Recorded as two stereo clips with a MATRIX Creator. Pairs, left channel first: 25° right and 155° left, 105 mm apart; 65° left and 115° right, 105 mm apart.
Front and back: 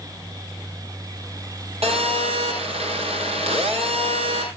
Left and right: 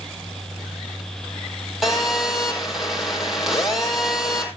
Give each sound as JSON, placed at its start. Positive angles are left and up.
{"t": 1.8, "sound": "a phone buzzing", "azimuth_deg": 160, "distance_m": 4.5}